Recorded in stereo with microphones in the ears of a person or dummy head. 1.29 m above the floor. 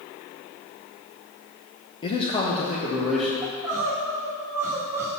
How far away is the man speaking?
About 0.7 m.